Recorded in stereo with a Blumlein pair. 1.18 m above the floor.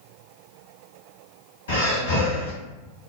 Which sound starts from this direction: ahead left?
Breathing, at 1.7 s.